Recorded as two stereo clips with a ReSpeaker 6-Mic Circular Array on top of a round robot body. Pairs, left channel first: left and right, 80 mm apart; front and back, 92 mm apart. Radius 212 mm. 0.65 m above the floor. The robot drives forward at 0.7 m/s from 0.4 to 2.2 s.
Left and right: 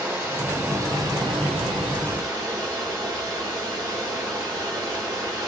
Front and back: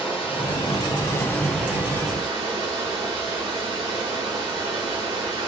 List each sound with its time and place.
0.0 s running water: 30° right, 0.9 m; by 5.5 s 135° right, 0.7 m